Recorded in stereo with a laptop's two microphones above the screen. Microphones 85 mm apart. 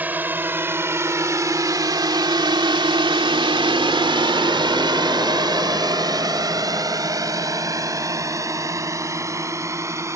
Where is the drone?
20° right (ahead or behind); by 10.2 s 35° right (ahead or behind).